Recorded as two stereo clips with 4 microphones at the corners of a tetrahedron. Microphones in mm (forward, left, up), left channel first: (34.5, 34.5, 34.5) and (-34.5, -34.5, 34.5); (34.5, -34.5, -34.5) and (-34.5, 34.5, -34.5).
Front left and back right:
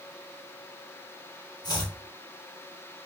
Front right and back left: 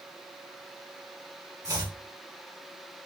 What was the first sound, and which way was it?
Chopping, 85° left.